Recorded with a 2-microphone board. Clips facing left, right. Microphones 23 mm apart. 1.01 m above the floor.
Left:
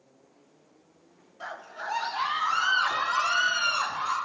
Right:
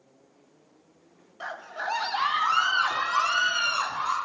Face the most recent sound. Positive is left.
turn(degrees=-60)  # may be behind; listen again after turning